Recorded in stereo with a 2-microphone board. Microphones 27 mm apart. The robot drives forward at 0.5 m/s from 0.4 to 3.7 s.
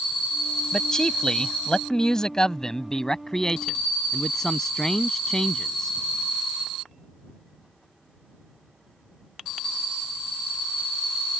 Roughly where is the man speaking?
Left.